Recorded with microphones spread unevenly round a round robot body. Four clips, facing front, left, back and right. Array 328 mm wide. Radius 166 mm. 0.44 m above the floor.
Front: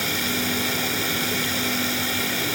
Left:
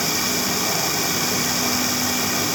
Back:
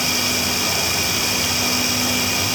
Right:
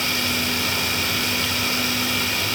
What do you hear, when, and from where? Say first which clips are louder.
0.0 s running water: left 1 dB, back 2 dB; 75° left, 0.9 m